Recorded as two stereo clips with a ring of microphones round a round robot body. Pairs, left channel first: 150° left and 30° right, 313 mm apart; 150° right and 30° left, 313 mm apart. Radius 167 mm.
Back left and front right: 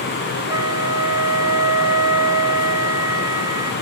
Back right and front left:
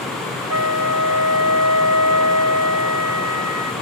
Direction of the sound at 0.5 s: 45° left.